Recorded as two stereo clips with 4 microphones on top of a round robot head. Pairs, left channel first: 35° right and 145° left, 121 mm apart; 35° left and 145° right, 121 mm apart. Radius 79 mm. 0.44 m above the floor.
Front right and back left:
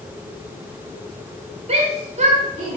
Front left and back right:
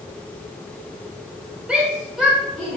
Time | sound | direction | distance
1.7 | a shout | 135° left | 1.3 m